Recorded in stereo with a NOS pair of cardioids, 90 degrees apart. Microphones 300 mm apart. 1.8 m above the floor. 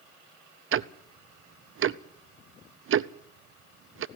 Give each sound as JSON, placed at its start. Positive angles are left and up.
{"t": 0.7, "sound": "ticking", "azimuth_deg": -45, "distance_m": 0.7}